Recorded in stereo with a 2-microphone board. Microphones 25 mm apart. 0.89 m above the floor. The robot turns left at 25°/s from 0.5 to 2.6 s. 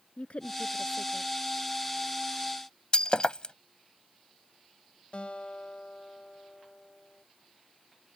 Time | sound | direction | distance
0.2 | a woman speaking | 55° left (ahead or behind) | ?
2.9 | breaking glass | 40° left (ahead or behind) | ?
5.1 | a guitar | 50° left (ahead or behind) | ?